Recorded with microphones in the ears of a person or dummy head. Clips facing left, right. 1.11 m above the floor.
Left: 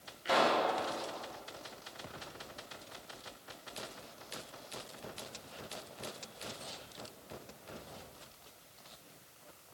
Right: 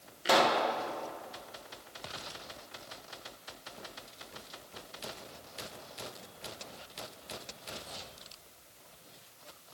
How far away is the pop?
About 0.7 m.